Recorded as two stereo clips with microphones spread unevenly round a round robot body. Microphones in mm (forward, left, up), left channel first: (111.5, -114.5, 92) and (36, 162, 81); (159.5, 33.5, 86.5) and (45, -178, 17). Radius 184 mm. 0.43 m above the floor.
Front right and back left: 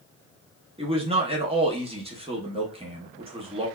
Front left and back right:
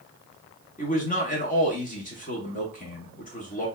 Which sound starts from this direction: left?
A man speaking, at 0.8 s.